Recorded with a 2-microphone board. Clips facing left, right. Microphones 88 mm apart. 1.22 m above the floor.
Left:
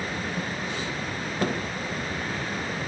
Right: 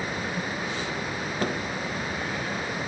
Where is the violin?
I don't hear a violin.